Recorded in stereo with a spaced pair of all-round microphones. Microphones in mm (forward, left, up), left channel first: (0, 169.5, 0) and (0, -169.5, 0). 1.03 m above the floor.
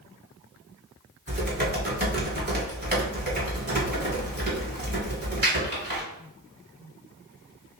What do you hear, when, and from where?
1.3 s typing on a keyboard: 30° right (ahead or behind), 1.8 m